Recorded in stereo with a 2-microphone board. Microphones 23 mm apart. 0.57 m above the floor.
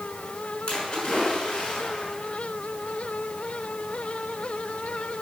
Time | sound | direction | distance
0.7 | a splash | 30° left (ahead or behind) | 6 m